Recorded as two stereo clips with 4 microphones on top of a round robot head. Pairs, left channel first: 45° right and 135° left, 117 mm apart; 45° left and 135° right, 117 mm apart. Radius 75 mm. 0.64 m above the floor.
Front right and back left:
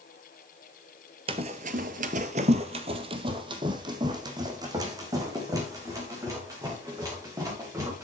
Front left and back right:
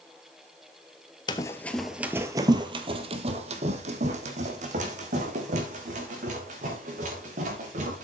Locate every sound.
1.3 s running footsteps: 95° left, 0.9 m; by 8.0 s 160° right, 5 m